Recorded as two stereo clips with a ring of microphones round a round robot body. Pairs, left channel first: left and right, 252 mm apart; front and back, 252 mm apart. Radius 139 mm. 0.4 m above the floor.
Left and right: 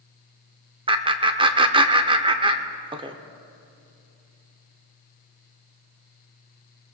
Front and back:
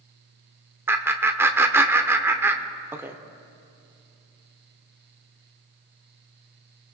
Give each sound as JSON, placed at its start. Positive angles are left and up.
{"t": 0.9, "sound": "laughter", "azimuth_deg": -115, "distance_m": 0.8}